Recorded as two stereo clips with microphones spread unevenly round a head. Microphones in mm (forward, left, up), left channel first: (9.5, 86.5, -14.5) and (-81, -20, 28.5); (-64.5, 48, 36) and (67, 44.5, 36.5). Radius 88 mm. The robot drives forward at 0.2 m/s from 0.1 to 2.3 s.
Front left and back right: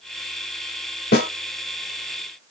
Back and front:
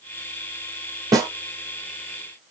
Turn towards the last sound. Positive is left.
turn(degrees=65)